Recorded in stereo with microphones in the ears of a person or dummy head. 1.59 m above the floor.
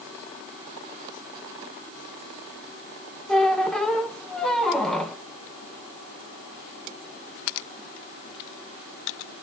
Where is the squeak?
5° left (ahead or behind), 1.0 m.